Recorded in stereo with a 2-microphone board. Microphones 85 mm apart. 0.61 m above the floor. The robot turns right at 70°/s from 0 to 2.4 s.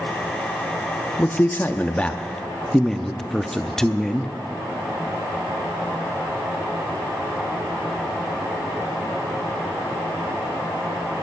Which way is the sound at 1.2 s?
25° left (ahead or behind).